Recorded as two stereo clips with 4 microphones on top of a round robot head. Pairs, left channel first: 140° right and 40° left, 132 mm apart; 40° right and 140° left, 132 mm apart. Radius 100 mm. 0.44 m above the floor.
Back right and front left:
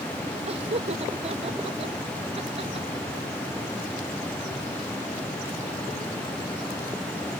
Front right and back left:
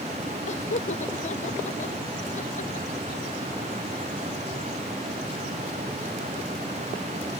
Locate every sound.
0.5 s laughter: 5° right